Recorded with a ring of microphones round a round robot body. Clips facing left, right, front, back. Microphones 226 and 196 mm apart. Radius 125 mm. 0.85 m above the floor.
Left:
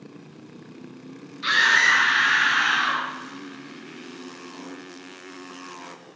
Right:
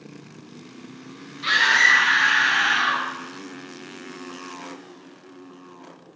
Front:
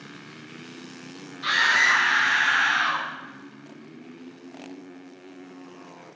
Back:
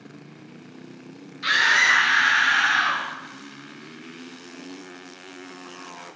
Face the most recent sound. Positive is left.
turn(degrees=170)